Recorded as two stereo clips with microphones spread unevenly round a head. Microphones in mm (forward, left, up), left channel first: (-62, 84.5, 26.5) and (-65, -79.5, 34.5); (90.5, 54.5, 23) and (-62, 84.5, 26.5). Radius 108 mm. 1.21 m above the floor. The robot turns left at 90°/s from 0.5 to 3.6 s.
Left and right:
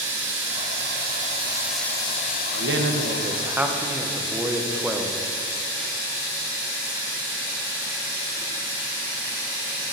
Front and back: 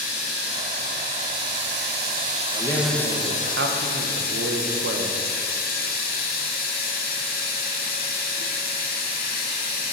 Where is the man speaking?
75° right, 1.0 m; by 5.2 s 170° right, 1.0 m.